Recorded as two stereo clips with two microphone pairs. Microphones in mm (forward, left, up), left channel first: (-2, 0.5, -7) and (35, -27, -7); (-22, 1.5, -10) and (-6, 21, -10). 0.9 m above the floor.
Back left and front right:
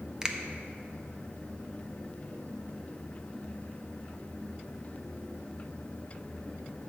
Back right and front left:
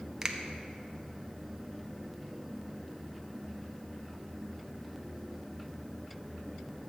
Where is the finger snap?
15° left, 0.6 m.